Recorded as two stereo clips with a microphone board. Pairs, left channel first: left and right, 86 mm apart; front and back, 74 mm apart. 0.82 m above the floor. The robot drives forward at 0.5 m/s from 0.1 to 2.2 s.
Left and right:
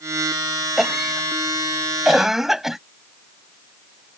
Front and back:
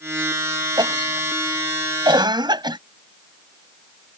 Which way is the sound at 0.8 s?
175° right.